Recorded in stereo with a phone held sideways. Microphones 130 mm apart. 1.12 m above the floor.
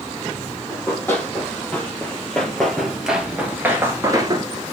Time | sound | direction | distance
0.7 | running footsteps | 15° left (ahead or behind) | 2.5 m